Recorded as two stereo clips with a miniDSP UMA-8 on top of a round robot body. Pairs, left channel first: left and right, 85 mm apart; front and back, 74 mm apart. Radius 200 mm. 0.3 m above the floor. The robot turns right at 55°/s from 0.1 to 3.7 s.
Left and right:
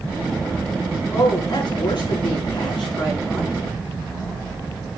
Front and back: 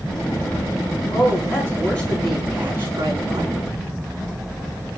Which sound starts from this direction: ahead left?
A woman speaking, at 1.1 s.